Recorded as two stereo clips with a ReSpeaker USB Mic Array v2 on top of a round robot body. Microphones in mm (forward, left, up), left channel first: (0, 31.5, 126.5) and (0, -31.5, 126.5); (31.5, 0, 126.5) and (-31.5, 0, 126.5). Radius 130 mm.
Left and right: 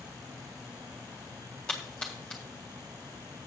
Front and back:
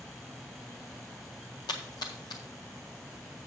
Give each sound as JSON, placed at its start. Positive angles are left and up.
{"t": 1.7, "sound": "a splash", "azimuth_deg": 15, "distance_m": 0.5}